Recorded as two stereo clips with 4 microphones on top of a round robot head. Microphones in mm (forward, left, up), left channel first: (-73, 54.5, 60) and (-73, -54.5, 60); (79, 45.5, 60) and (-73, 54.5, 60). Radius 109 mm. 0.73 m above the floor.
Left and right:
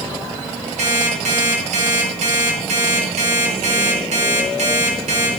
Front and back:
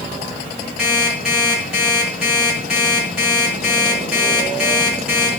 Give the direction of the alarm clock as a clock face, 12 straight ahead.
3 o'clock.